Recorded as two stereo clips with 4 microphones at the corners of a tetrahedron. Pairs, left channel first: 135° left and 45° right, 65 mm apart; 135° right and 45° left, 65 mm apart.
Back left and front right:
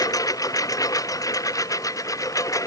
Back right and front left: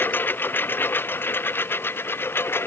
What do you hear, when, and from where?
0.0 s a lawn mower: 165° left; by 2.7 s 170° left